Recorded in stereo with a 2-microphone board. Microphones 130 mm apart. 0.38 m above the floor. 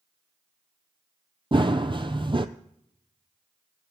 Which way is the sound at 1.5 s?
40° right (ahead or behind).